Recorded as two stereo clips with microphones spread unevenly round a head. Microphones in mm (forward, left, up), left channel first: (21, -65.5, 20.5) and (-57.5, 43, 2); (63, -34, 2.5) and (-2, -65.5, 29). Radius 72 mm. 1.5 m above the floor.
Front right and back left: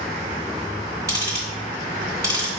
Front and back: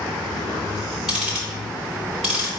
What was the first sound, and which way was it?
Ticking, straight behind.